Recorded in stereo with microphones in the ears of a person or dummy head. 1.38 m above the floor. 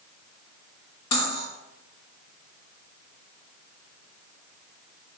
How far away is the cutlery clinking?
About 2 m.